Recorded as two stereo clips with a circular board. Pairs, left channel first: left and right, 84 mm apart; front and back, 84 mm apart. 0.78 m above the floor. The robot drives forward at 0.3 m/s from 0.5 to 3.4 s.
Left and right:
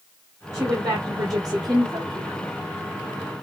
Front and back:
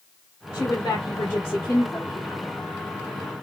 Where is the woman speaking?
45° right, 2 m; by 2.5 s 60° right, 1.7 m.